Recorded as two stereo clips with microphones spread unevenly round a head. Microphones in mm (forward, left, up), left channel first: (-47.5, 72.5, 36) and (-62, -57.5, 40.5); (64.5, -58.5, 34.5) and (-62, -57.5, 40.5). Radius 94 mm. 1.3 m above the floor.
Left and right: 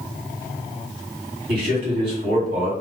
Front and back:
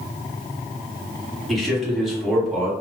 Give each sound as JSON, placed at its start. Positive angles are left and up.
{"t": 1.5, "sound": "a man speaking", "azimuth_deg": -90, "distance_m": 1.3}